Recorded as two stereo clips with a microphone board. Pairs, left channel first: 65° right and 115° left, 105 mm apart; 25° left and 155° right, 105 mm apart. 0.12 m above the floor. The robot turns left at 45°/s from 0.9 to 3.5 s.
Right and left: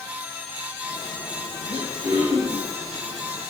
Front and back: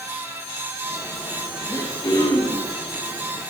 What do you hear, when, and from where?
1.7 s throat clearing: 80° left, 4.5 m; by 2.7 s 35° left, 4.5 m